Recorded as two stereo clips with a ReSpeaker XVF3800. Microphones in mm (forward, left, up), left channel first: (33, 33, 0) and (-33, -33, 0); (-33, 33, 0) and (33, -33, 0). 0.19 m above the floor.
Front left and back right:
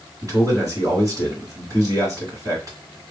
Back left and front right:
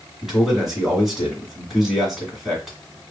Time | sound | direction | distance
0.2 | a man speaking | 130° right | 2.0 m